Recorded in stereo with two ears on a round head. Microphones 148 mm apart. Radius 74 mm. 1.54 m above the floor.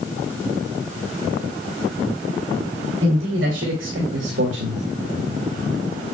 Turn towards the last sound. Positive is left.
turn(degrees=-80)